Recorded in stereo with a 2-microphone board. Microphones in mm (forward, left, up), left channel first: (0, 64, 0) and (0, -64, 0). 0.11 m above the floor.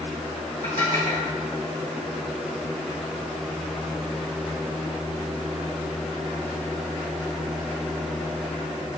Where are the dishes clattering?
70° left (ahead or behind), 3 m.